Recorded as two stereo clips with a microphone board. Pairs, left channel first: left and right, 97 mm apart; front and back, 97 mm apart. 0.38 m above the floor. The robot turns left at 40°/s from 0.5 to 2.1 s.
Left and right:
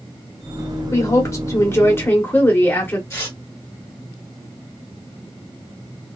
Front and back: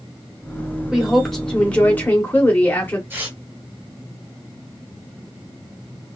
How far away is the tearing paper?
About 1.3 m.